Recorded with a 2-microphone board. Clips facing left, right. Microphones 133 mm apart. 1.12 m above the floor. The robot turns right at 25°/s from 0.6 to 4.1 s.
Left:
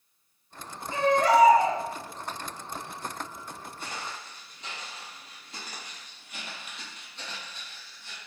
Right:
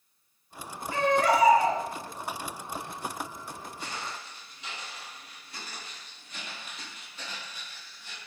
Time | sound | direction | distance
0.9 | a baby crying | 25° left (ahead or behind) | 1.6 m
3.8 | footsteps | 50° left (ahead or behind) | 1.7 m